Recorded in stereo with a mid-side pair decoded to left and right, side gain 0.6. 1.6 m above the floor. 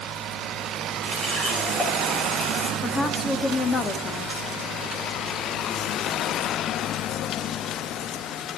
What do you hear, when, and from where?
1.0 s a running tap: 30° left, 9 m
2.8 s a woman speaking: 30° left, 3 m